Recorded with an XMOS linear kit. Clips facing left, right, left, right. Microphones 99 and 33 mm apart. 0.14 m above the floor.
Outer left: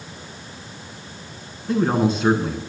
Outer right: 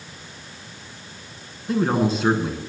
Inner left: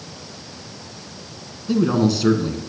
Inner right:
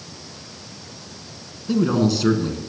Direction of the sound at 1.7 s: Centre (ahead or behind).